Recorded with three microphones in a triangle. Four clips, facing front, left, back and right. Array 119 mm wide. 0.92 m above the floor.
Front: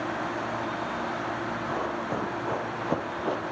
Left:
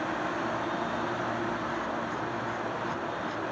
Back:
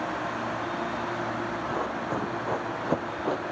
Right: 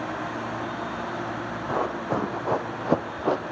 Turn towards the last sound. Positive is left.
turn(degrees=-95)